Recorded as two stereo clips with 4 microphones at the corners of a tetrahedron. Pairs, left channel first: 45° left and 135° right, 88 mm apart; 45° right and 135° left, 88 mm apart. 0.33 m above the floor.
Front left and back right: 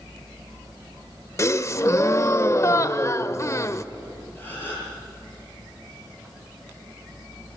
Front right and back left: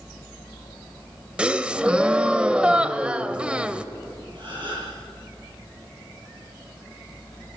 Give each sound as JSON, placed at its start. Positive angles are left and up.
{"t": 1.4, "sound": "a gasp", "azimuth_deg": 65, "distance_m": 0.6}
{"t": 4.3, "sound": "a gasp", "azimuth_deg": 110, "distance_m": 9.5}